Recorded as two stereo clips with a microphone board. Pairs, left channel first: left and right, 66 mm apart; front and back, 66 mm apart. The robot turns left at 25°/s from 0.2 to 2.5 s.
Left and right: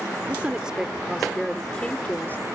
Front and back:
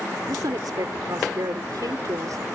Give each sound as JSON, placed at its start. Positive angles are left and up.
{"t": 0.3, "sound": "a woman speaking", "azimuth_deg": -155}